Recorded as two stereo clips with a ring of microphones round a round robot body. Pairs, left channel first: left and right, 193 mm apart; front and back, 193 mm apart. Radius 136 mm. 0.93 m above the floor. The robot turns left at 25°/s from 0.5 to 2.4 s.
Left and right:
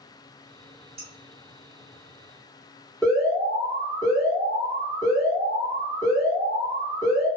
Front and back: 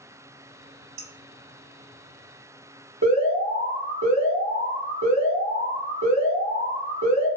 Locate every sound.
1.0 s dishes clattering: 150° right, 1.2 m; by 1.1 s 155° right, 1.2 m
3.0 s an alarm: 170° left, 1.5 m